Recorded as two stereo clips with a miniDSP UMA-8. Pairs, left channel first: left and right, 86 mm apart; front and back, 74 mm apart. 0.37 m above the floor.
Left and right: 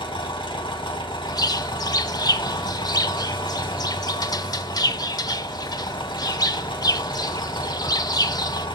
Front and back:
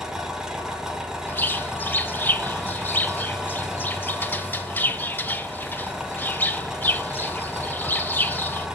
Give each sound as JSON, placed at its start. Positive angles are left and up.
{"t": 0.0, "sound": "an engine running", "azimuth_deg": 95, "distance_m": 1.9}
{"t": 1.3, "sound": "a bird", "azimuth_deg": 60, "distance_m": 0.6}